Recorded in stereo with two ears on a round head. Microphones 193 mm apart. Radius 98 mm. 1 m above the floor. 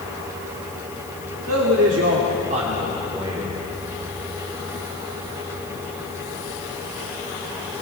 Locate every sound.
1.5 s a man speaking: 70° right (ahead or behind), 2 m; by 3.5 s 10° right (ahead or behind), 3.5 m